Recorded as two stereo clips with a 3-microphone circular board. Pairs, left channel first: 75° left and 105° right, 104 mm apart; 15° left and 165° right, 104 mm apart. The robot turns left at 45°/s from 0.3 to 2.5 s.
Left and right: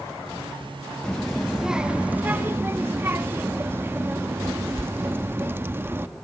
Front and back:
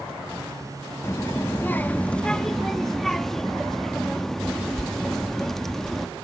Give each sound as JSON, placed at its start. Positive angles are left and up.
{"t": 1.0, "sound": "a child speaking", "azimuth_deg": 0, "distance_m": 0.6}